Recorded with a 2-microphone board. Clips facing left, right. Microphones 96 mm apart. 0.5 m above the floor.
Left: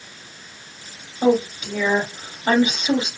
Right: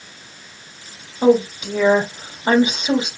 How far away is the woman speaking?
About 1.5 m.